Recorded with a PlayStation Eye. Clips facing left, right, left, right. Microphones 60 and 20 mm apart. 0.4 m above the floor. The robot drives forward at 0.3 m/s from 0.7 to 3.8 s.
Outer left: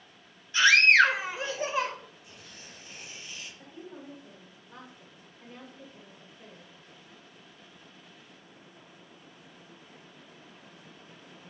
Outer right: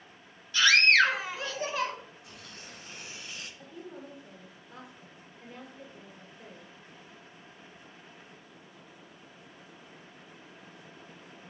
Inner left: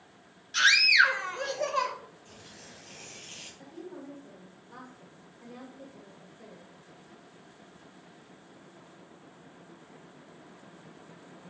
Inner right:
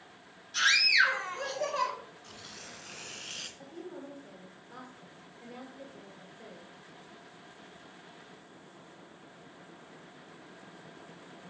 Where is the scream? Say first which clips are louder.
Outer left 2 dB, inner left 3 dB; 25° left (ahead or behind), 1.5 m; by 1.9 s 20° left (ahead or behind), 1.7 m.